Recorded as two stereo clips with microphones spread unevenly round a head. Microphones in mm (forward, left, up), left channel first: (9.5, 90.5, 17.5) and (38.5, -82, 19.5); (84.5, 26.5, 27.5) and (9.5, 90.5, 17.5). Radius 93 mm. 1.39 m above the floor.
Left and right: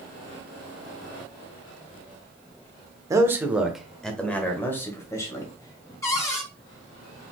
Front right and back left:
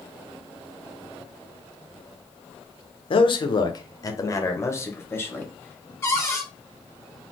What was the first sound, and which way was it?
A man speaking, 10° right.